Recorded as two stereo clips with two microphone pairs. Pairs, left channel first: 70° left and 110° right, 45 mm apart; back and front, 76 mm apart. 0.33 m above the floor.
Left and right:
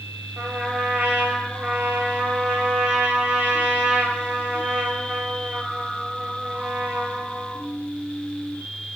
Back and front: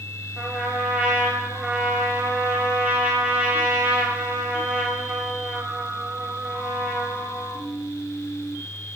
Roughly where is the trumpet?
Ahead right.